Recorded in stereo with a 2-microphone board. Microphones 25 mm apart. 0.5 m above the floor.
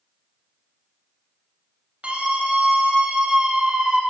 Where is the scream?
65° right (ahead or behind), 2.5 m; by 4.0 s 45° right (ahead or behind), 1.6 m.